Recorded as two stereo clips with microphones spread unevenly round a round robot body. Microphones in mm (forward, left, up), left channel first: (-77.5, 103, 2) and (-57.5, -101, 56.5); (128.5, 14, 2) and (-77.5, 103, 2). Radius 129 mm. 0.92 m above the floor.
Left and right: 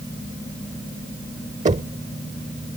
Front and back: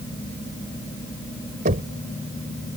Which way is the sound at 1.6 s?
140° right.